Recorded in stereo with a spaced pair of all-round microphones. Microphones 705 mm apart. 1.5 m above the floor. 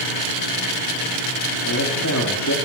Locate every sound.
1.6 s a man speaking: 25° left (ahead or behind), 3.5 m